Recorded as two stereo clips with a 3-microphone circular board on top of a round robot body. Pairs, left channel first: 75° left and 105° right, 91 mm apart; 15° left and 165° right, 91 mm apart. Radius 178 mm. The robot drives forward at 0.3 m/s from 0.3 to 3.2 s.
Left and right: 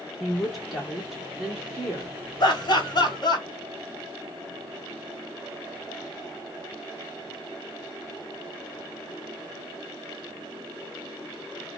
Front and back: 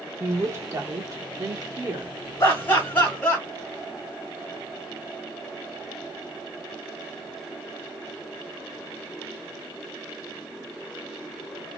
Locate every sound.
0.2 s a woman speaking: 165° left, 1.4 m; by 2.2 s 170° left, 1.7 m
2.4 s laughter: 70° left, 1.5 m; by 3.5 s 85° left, 1.4 m